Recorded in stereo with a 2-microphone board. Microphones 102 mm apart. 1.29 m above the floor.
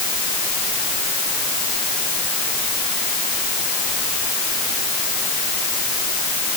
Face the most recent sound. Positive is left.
No sound to turn to.